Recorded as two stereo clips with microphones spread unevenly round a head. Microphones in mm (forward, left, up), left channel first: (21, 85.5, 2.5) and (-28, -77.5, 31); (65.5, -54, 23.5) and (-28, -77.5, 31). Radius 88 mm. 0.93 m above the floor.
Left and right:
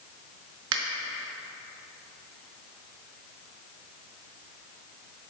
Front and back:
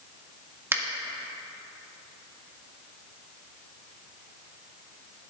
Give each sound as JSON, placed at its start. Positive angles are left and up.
{"t": 0.7, "sound": "a finger snap", "azimuth_deg": -100, "distance_m": 1.7}